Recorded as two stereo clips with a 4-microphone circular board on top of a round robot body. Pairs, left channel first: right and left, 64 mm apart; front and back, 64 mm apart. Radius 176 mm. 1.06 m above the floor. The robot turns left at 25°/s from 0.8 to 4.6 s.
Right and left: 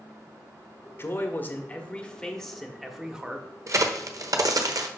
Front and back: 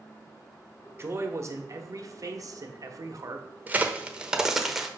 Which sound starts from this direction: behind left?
A crack, at 3.7 s.